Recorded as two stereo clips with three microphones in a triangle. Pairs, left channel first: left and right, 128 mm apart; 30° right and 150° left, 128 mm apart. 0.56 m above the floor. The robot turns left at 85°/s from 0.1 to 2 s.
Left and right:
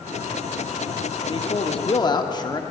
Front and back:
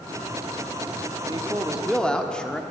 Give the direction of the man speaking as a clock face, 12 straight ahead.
8 o'clock.